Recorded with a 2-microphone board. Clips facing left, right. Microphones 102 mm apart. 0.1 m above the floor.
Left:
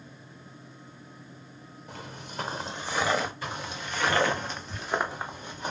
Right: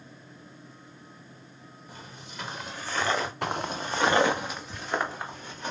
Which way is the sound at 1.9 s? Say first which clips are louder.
Left 5 dB; 75° left (ahead or behind).